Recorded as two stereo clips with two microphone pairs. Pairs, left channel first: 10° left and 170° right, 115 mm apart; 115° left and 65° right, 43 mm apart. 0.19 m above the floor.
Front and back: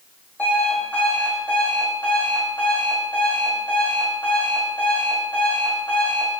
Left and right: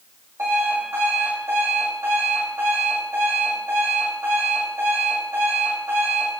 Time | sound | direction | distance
0.4 | an alarm clock | 65° right | 4.5 m